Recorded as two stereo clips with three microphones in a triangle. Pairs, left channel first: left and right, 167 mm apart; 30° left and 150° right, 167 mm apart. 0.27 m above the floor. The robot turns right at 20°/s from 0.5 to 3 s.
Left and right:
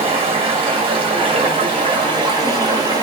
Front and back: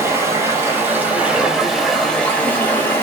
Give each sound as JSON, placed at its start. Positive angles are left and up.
{"t": 0.0, "sound": "running water", "azimuth_deg": -85, "distance_m": 1.2}